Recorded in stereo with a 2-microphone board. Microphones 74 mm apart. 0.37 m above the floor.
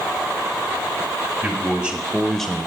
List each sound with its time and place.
1.4 s a man speaking: 25° right (ahead or behind), 1.8 m; by 2.7 s 20° left (ahead or behind), 0.9 m